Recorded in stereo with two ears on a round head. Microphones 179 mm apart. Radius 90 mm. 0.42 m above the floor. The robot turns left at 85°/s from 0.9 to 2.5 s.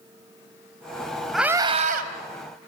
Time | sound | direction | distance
1.3 | a scream | straight ahead | 2.5 m